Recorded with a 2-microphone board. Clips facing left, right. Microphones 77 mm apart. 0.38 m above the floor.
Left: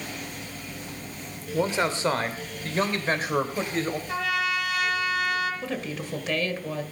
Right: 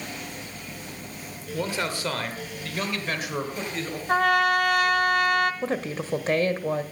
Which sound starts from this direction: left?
A man speaking, at 1.5 s.